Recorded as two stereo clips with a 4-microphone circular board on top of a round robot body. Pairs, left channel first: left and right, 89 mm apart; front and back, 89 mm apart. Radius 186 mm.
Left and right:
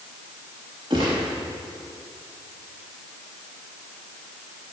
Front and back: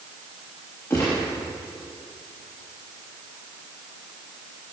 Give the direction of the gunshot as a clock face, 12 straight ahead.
2 o'clock.